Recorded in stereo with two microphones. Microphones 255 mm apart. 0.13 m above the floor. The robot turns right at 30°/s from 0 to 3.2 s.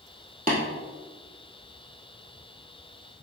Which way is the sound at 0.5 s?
35° right (ahead or behind).